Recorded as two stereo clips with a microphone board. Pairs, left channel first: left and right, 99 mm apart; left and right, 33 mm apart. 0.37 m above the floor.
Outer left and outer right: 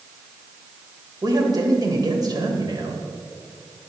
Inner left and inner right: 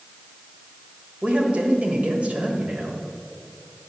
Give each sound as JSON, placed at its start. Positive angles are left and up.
{"t": 1.2, "sound": "a man speaking", "side_deg": -45, "distance_m": 1.5}